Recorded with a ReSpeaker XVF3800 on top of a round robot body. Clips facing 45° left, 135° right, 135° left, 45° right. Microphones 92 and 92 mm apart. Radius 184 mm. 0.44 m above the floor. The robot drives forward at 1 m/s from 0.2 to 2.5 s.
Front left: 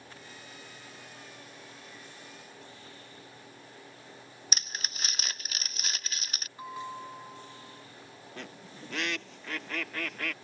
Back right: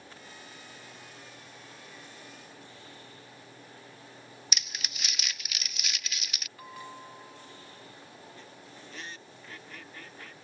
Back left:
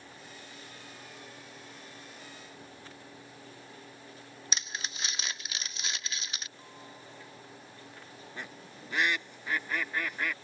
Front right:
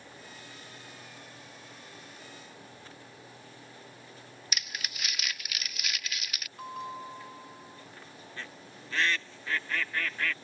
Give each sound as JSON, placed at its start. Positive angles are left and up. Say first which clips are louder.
{"t": 4.5, "sound": "crumpling", "louder": "front left 2 dB, back left 1 dB", "azimuth_deg": 80}
{"t": 6.6, "sound": "a bell", "louder": "front left 6 dB, front right 11 dB", "azimuth_deg": -20}
{"t": 8.4, "sound": "a bird", "louder": "front left 4 dB, back left 1 dB", "azimuth_deg": 60}